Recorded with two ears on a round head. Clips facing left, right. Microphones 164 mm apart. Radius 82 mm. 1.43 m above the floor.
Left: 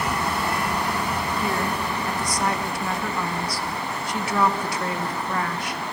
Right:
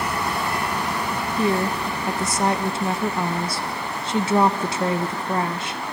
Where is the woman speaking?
25° right (ahead or behind), 1.2 m.